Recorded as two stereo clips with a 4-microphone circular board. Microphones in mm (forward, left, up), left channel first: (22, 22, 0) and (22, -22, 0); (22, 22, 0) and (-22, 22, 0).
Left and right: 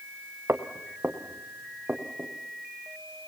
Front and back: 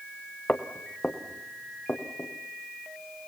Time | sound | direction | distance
0.5 | footsteps | 60° right | 2 m